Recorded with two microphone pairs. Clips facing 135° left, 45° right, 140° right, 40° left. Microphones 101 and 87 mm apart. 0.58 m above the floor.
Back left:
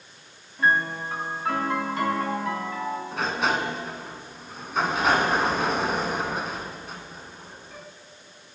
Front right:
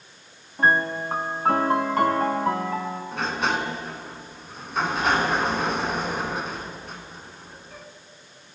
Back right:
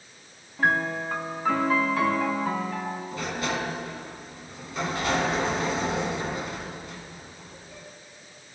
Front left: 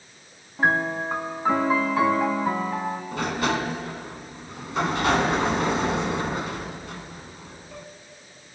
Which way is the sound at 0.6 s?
25° right.